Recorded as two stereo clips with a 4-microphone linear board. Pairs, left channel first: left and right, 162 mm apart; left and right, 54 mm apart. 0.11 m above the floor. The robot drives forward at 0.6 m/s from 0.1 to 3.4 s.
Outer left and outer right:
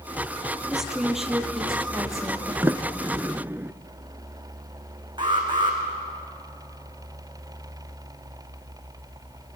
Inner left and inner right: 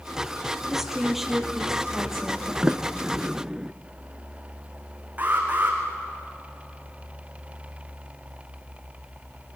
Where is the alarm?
30° right (ahead or behind), 4.5 m.